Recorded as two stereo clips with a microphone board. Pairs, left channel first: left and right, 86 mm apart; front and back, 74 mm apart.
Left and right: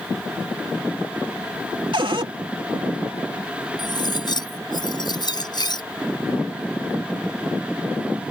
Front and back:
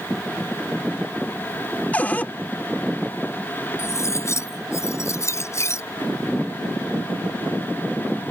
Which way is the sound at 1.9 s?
70° right.